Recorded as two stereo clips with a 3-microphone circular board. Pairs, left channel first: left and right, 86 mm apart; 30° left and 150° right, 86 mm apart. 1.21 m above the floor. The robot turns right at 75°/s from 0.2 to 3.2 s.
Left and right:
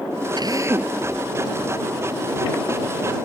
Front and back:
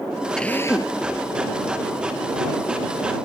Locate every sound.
0.4 s a drill: 55° right; by 1.0 s 10° right